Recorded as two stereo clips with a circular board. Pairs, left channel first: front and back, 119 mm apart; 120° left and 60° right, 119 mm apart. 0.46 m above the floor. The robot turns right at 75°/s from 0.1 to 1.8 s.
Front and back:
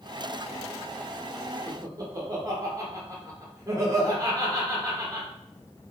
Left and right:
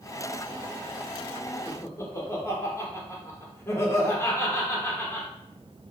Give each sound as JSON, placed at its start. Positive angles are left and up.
{"t": 1.7, "sound": "laughter", "azimuth_deg": 150, "distance_m": 0.9}